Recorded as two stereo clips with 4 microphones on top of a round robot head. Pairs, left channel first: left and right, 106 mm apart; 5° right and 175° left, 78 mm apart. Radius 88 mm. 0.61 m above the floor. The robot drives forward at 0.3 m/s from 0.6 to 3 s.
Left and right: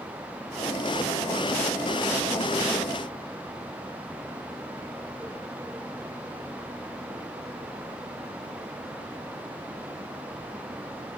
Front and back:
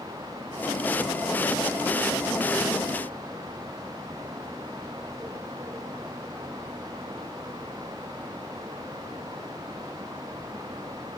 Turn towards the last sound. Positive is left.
No sound to turn to.